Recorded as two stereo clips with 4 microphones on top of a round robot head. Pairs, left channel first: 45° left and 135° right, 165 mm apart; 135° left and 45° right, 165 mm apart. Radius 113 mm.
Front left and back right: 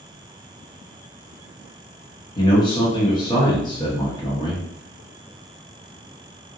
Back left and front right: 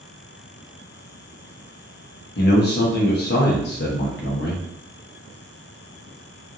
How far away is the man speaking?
About 1.1 m.